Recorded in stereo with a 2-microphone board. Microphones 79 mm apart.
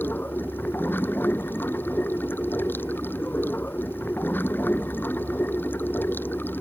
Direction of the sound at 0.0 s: 25° left (ahead or behind).